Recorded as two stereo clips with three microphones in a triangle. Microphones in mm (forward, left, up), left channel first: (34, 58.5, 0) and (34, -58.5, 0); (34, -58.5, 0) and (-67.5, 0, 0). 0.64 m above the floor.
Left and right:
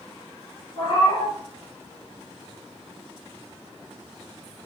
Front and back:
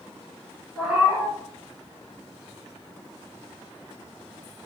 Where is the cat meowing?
75° left, 0.7 m.